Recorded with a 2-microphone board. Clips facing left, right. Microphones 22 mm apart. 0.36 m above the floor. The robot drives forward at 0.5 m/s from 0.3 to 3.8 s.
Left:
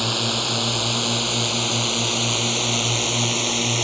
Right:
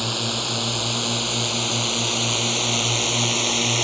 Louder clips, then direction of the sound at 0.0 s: Left 2 dB; 10° left (ahead or behind).